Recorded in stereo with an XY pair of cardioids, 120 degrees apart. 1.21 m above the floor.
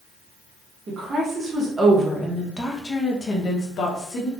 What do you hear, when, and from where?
0.9 s a woman speaking: 35° right, 1.3 m; by 4.3 s 55° left, 1.5 m